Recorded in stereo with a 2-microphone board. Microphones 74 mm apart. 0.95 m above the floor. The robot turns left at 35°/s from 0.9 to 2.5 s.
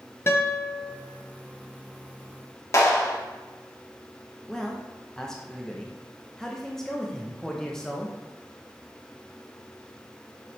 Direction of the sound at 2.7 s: 45° left (ahead or behind).